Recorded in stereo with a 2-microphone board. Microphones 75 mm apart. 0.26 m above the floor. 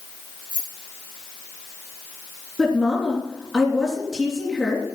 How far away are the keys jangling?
About 9.5 m.